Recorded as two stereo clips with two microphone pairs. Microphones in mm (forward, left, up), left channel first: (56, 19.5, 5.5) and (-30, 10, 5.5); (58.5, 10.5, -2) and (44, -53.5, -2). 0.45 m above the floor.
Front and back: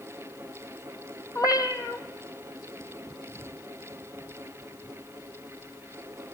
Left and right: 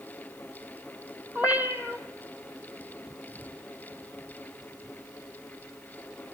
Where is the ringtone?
No ringtone in this recording.